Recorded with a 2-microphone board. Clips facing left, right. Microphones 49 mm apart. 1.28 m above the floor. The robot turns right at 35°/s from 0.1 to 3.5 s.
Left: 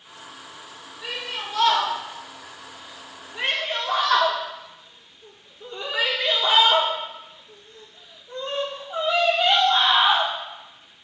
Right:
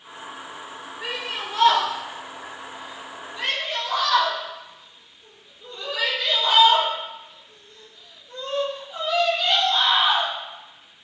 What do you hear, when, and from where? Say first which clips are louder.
1.0 s a shout: right 1 dB; 55° right (ahead or behind), 4 m; by 10.3 s 35° left (ahead or behind), 4 m